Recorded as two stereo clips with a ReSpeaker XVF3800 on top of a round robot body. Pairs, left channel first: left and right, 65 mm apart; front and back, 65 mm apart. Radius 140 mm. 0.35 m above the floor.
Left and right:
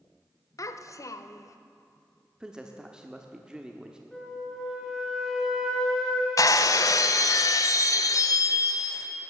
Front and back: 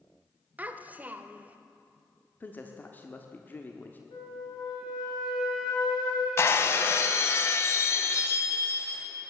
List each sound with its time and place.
0.6 s a child speaking: 115° left, 1.0 m
2.4 s a man speaking: 25° right, 1.4 m
4.1 s a flute: 5° left, 4 m
6.4 s breaking glass: 55° left, 0.6 m